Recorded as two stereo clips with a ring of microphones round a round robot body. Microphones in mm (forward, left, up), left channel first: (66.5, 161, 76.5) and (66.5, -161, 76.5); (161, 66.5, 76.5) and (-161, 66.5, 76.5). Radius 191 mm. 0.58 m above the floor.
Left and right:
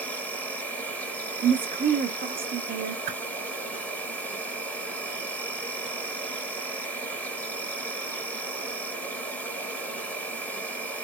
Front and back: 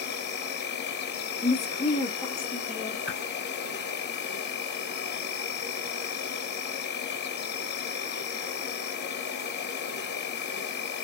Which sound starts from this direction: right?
A whoosh, at 3.1 s.